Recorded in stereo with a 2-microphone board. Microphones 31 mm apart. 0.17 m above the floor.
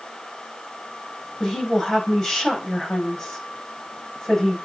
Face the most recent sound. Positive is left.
turn(degrees=20)  # may be behind; listen again after turning